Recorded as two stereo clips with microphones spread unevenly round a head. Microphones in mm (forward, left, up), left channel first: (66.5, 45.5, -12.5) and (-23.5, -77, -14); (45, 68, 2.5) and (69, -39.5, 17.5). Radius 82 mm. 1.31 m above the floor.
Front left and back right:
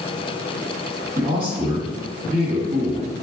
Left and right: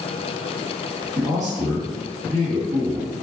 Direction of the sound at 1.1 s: 70° right.